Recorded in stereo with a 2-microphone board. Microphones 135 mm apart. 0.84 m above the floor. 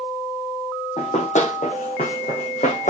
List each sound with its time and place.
1.0 s running footsteps: 55° left (ahead or behind), 2.5 m; by 2.9 s 65° left (ahead or behind), 2.5 m